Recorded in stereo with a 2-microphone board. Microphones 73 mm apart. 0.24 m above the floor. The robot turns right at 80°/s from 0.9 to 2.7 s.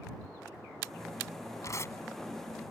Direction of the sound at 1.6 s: 50° left (ahead or behind).